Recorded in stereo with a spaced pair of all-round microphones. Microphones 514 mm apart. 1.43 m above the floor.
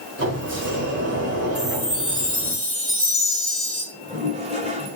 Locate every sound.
0.2 s a sliding door: 25° right (ahead or behind), 4 m
1.6 s a chime: 45° left (ahead or behind), 3 m
3.9 s a toilet flushing: 10° right (ahead or behind), 5 m